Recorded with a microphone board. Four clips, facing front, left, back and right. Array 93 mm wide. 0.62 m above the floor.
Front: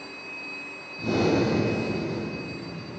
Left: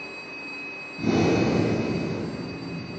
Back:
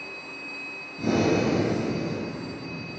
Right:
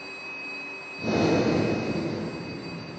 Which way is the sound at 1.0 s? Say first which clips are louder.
Left 1 dB, even; 130° left.